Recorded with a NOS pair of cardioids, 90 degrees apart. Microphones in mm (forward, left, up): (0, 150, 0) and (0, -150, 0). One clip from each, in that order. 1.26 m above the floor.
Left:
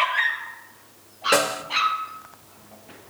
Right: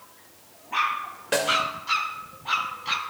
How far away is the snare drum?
About 3 m.